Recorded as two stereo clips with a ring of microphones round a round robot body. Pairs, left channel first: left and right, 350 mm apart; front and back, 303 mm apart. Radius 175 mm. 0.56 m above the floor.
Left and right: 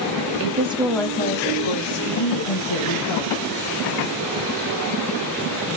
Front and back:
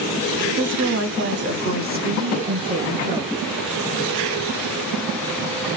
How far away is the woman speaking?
About 0.9 m.